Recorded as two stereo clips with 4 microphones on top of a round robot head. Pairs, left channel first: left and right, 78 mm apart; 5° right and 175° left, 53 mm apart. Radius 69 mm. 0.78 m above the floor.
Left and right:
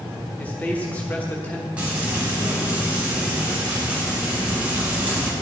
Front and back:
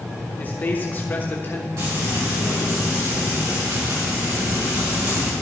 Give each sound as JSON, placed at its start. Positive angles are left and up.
{"t": 0.4, "sound": "a man speaking", "azimuth_deg": 30, "distance_m": 1.1}
{"t": 1.8, "sound": "frying", "azimuth_deg": -160, "distance_m": 5.0}